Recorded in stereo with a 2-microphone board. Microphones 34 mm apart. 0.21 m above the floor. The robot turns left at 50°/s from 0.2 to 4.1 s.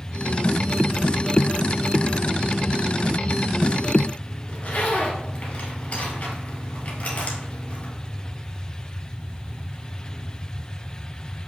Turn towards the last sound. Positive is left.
turn(degrees=35)  # may be behind; listen again after turning